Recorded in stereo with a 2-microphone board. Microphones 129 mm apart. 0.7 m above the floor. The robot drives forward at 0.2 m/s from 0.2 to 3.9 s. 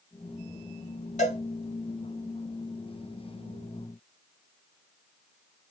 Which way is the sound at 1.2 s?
70° left (ahead or behind).